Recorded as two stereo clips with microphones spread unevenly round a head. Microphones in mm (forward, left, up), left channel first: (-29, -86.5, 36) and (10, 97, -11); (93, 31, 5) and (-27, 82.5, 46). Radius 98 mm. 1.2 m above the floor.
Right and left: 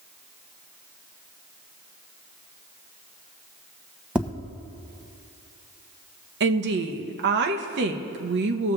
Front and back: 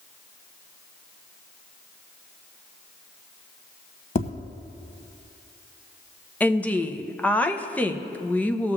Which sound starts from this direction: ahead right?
Tapping, at 4.2 s.